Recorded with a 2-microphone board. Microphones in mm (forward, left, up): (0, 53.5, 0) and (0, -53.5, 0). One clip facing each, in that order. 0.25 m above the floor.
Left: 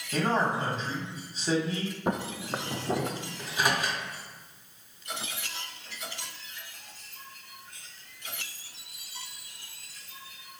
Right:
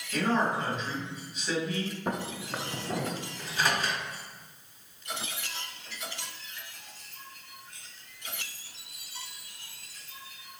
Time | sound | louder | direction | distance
0.1 | a man speaking | even | 35° left (ahead or behind) | 1.3 m
2.1 | footsteps | left 3 dB | 15° left (ahead or behind) | 0.5 m
3.4 | a microwave | left 1 dB | 15° left (ahead or behind) | 1.3 m